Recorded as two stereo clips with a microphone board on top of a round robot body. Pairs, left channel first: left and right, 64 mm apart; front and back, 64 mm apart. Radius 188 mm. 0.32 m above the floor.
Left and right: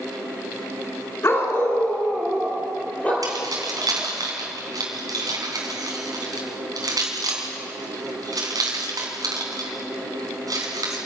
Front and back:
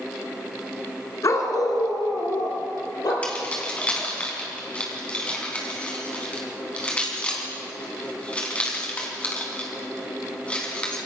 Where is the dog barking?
40° left, 2 m; by 3.1 s 20° left, 4.5 m.